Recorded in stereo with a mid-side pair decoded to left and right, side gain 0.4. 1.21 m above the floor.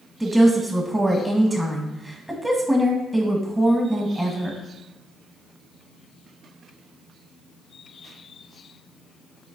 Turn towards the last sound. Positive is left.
turn(degrees=-10)